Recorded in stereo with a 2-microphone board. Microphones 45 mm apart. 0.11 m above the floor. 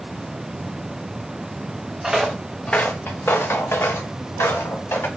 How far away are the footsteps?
About 0.6 m.